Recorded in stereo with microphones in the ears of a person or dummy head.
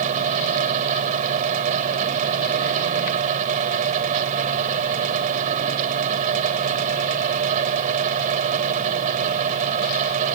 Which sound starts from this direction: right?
A fan, at 0.0 s.